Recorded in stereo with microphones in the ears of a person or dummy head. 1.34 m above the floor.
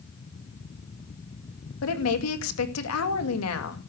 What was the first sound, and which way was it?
A woman speaking, 85° left.